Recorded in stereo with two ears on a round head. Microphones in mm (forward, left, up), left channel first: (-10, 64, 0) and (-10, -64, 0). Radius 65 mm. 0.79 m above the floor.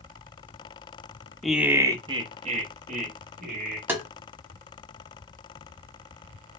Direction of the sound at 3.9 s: 15° right (ahead or behind).